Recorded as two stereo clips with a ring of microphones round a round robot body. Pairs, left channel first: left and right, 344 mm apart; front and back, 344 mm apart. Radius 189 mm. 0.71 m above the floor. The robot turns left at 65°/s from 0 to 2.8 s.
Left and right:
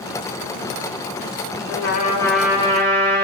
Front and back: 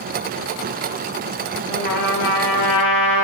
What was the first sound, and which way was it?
A trumpet, 45° left.